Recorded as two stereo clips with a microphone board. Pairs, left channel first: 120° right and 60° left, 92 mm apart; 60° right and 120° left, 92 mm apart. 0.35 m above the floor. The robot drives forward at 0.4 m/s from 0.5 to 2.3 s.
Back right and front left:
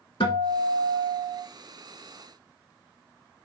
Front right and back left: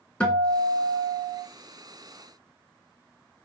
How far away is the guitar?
About 0.8 m.